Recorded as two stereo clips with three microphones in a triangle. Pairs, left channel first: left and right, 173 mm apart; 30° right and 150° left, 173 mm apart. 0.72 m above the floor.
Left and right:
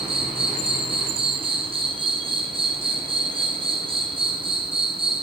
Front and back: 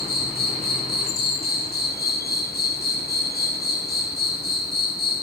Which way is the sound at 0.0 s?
35° right.